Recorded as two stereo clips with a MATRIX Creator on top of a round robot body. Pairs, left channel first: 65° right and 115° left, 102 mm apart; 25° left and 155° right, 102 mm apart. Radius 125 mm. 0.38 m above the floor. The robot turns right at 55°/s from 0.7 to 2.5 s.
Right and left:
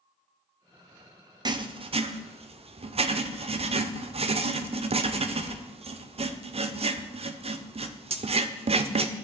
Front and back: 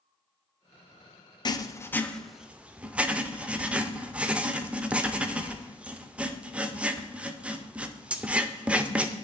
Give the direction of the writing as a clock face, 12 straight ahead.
10 o'clock.